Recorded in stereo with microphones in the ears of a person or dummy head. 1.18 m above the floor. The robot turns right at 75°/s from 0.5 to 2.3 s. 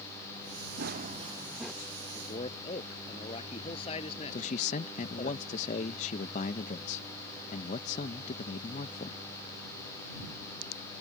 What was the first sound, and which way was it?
Running footsteps, 60° right.